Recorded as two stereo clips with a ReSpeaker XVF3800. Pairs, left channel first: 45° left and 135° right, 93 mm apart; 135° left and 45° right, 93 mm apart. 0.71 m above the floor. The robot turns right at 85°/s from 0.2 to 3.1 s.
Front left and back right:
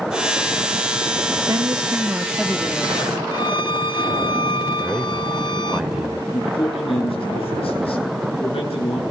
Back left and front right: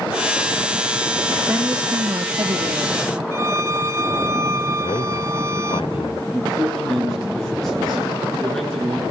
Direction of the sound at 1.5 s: 115° right.